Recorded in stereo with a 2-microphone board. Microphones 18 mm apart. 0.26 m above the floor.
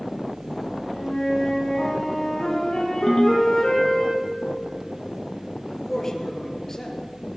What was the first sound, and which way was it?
A flute, 45° left (ahead or behind).